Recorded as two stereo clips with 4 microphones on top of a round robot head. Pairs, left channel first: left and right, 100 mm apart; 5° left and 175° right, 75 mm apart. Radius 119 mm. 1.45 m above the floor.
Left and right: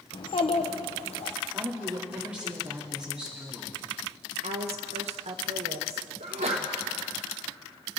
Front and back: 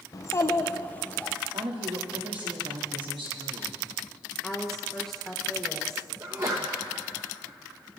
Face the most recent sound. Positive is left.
turn(degrees=-115)